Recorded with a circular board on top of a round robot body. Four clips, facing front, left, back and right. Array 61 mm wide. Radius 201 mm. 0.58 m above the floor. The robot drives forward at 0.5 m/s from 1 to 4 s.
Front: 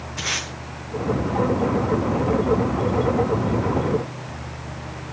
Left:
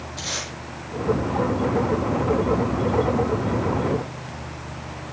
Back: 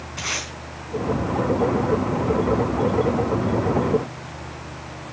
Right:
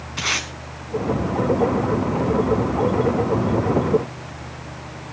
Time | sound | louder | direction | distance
0.2 | tape being pulled | right 9 dB, front 1 dB | 95° right | 4.5 m